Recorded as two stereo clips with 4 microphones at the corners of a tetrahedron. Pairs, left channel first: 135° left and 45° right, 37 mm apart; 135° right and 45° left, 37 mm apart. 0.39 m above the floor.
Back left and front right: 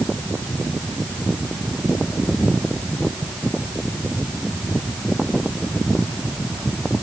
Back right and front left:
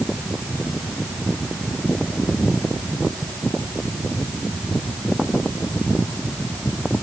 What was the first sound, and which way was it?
Only background noise.